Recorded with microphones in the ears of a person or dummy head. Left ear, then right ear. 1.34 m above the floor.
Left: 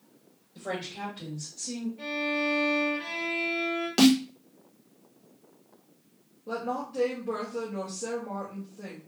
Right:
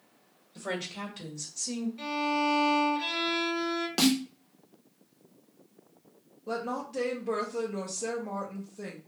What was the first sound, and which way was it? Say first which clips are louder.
A woman speaking: even; 65° right (ahead or behind).